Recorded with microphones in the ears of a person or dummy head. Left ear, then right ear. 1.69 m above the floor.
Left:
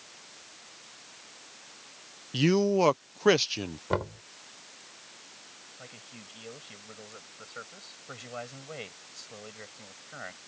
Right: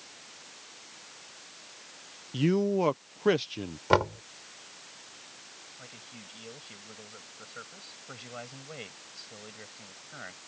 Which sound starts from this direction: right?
Knocking, at 3.9 s.